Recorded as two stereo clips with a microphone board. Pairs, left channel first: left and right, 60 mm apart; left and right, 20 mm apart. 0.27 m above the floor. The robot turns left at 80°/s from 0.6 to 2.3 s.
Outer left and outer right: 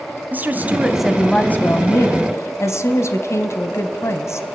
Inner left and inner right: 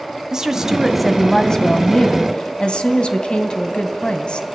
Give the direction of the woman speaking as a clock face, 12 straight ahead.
5 o'clock.